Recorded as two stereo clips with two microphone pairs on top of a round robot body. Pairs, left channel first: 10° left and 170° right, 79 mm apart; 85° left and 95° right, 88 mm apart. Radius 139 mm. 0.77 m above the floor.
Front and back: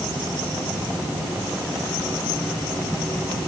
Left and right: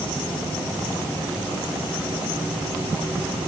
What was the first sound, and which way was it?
Only background noise.